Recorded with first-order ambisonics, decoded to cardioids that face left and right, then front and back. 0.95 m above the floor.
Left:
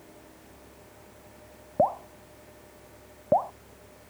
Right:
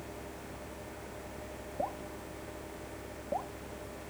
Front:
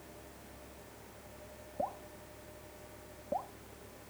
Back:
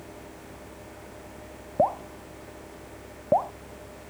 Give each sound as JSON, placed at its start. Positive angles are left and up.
{"t": 1.8, "sound": "dripping", "azimuth_deg": 135}